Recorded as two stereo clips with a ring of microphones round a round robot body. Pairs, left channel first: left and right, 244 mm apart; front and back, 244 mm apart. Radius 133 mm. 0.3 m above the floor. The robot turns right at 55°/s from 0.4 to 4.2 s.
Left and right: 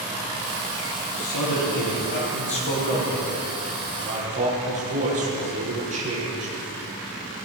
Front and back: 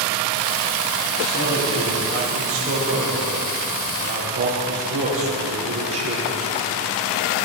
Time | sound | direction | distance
1.2 | a man speaking | 40° left | 9.5 m